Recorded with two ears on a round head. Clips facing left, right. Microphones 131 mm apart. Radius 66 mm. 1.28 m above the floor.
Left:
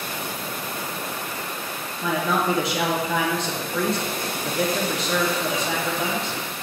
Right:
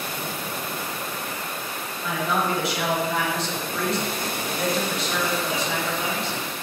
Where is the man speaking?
70° left (ahead or behind), 1.0 m.